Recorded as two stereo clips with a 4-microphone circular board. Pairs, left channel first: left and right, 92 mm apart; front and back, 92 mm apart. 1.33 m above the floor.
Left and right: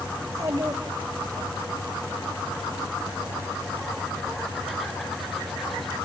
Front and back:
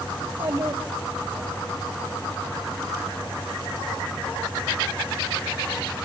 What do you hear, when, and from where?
0.2 s a child speaking: 145° right, 2 m